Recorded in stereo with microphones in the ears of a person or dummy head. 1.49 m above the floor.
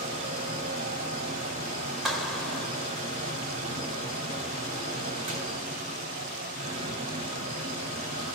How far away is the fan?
About 2.0 m.